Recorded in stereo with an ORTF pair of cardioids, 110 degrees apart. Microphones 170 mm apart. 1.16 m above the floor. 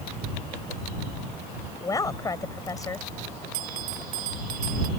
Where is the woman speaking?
20° left.